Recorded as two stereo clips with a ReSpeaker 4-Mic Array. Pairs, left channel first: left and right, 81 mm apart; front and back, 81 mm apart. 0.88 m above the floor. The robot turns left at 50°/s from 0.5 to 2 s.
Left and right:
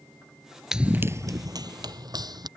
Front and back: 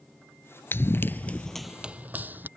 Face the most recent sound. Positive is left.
turn(degrees=-115)